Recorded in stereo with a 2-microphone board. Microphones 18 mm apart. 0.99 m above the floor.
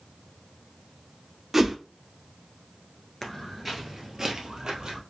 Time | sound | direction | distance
1.5 | a whoosh | 25° right (ahead or behind) | 0.6 m
3.2 | footsteps | 20° left (ahead or behind) | 1.0 m